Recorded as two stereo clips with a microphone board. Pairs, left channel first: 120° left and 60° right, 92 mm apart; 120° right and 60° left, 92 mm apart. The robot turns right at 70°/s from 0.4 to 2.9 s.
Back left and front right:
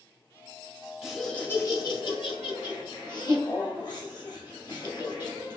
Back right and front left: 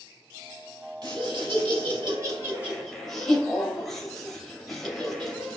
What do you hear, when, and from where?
1.0 s laughter: 20° left, 1.6 m; by 5.6 s 155° left, 1.6 m